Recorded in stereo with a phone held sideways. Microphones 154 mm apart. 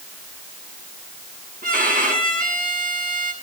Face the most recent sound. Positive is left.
turn(degrees=-75)  # may be behind; listen again after turning